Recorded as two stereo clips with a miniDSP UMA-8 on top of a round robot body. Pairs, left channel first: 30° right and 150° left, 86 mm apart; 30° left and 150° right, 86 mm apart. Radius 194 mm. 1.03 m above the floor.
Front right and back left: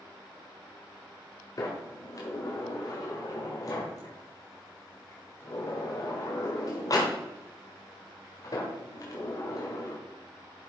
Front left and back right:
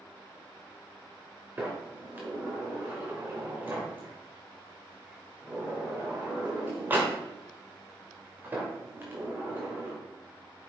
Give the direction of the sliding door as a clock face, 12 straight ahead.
3 o'clock.